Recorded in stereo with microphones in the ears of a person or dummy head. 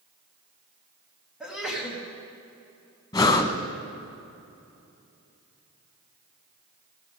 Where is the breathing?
10° left (ahead or behind), 0.9 m.